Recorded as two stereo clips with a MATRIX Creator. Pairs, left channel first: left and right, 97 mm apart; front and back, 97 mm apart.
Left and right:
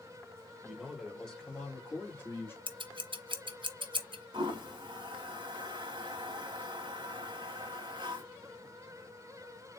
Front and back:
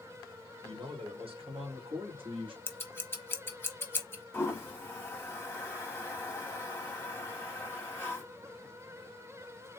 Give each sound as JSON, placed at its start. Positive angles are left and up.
{"t": 0.6, "sound": "a man speaking", "azimuth_deg": -170, "distance_m": 1.5}
{"t": 2.7, "sound": "scissors", "azimuth_deg": -65, "distance_m": 0.8}
{"t": 4.3, "sound": "a toilet flushing", "azimuth_deg": -65, "distance_m": 1.3}